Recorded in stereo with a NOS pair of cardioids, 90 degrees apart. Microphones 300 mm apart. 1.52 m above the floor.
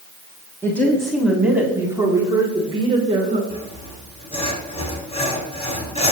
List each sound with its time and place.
0.6 s a woman speaking: 10° left, 3 m; by 3.4 s 25° right, 5 m
3.5 s sawing: 20° left, 4 m